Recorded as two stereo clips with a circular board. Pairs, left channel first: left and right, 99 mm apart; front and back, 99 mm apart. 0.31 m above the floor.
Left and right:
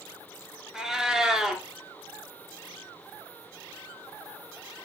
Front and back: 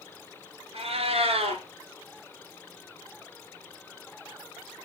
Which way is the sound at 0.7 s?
175° right.